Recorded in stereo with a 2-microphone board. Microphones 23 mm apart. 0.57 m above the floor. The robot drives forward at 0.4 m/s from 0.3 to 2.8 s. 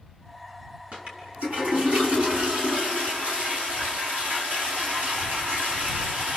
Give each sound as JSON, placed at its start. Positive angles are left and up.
{"t": 0.9, "sound": "a toilet flushing", "side_deg": -55, "distance_m": 5.0}